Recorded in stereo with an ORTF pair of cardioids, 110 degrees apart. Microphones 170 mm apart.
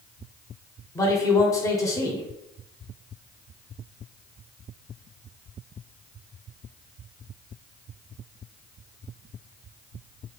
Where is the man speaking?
20° left, 0.9 m.